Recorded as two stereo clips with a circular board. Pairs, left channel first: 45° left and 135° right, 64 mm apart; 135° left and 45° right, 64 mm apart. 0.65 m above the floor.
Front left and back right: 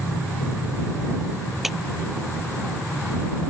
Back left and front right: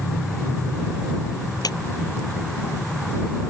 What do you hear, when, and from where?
1.6 s a clap: 140° left